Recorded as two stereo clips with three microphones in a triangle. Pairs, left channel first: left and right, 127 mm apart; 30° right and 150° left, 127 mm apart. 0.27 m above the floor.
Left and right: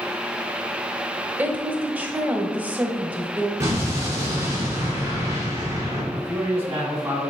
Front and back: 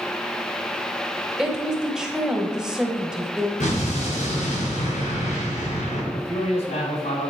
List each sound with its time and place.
1.4 s a woman speaking: 140° right, 0.9 m
3.6 s an explosion: 25° right, 3 m
6.1 s a man speaking: 20° right, 3 m